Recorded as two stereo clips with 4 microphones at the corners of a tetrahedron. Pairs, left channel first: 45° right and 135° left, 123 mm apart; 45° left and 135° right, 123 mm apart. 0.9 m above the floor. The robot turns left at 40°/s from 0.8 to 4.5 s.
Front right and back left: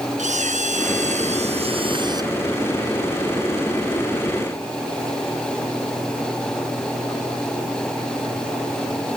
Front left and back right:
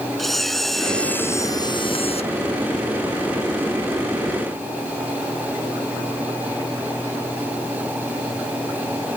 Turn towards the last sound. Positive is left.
turn(degrees=-15)